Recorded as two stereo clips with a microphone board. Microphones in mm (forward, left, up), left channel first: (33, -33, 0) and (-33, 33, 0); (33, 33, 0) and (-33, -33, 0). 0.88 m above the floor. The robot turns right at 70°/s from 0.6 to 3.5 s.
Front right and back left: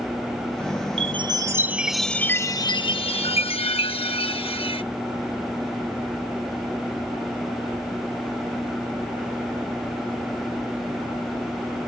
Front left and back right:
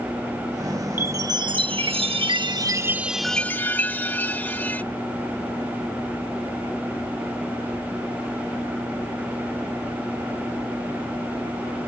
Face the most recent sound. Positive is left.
turn(degrees=-25)